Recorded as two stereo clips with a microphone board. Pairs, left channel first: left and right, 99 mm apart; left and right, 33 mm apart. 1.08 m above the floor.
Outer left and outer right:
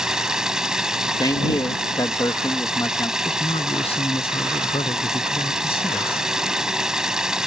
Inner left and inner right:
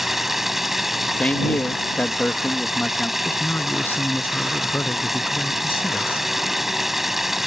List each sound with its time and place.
0.0 s running water: 5° right (ahead or behind)
1.2 s a man speaking: 45° left (ahead or behind)
3.2 s a man speaking: 80° left